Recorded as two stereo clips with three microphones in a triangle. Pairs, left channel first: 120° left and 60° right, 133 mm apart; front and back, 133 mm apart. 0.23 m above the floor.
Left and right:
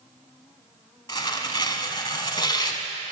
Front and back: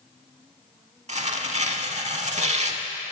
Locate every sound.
1.1 s tearing paper: 170° left, 0.5 m